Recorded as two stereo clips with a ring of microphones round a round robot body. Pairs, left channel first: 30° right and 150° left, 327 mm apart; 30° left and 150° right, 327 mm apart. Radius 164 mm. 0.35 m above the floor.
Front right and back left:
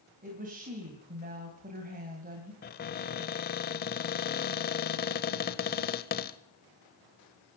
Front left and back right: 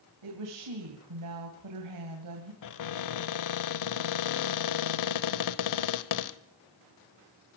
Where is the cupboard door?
25° left, 0.8 m.